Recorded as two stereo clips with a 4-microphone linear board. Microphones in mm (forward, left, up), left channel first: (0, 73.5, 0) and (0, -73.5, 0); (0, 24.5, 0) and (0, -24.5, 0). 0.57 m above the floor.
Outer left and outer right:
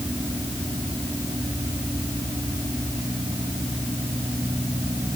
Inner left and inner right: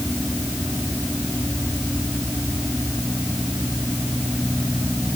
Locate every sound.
Only background noise.